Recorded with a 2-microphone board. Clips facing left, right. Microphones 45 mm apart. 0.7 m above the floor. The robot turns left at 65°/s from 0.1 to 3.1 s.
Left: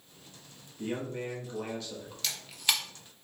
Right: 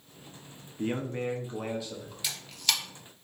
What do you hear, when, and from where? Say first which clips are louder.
0.8 s a man speaking: right 3 dB; 95° right, 0.6 m; by 2.1 s 175° left, 0.6 m
2.2 s a camera shutter: even; 10° right (ahead or behind), 0.7 m; by 2.8 s 25° left (ahead or behind), 0.7 m